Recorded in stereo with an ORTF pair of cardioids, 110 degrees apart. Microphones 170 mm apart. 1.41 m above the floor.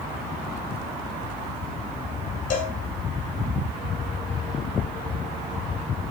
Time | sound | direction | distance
2.5 | a cowbell | 55° left | 4.5 m